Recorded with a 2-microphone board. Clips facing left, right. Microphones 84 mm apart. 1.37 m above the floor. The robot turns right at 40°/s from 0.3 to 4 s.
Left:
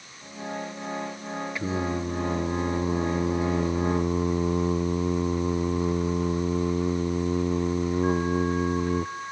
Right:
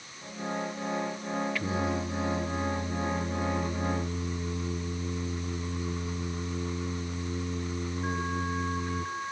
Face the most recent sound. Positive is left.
turn(degrees=120)